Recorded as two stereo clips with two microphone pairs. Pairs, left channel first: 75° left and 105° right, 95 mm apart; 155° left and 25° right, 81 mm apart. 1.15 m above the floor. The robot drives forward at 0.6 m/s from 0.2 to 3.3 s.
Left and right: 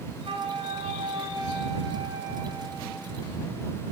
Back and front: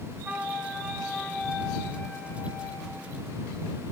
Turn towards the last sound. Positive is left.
turn(degrees=-150)